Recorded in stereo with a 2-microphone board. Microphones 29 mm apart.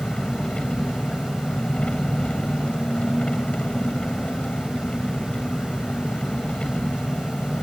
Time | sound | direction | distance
0.0 | an engine running | 40° left (ahead or behind) | ?